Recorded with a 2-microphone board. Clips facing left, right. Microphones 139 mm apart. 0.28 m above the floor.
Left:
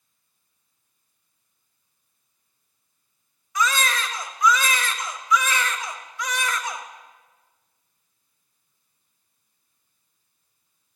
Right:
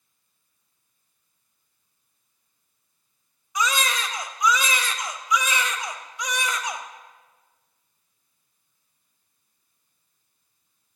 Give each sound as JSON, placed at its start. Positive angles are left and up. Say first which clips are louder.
{"t": 3.5, "sound": "a baby crying", "louder": "left 1 dB", "side_deg": -20, "distance_m": 1.0}